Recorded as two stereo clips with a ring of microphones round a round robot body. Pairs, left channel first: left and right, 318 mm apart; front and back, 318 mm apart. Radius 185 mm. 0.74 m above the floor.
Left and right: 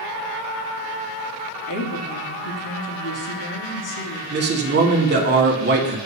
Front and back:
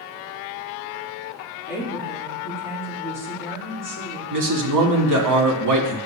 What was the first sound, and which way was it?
A woman speaking, 100° left.